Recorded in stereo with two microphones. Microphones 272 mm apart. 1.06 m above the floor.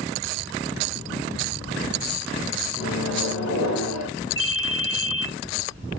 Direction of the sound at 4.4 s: 50° left (ahead or behind).